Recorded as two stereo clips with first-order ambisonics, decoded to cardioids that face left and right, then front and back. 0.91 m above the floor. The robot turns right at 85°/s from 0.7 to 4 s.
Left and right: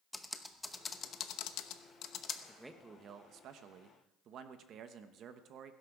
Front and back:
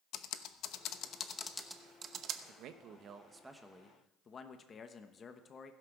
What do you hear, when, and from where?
0.1 s typing on a keyboard: 5° left, 0.8 m; by 2.4 s 150° left, 0.8 m
2.5 s a man speaking: 175° left, 1.0 m; by 5.7 s 55° right, 1.0 m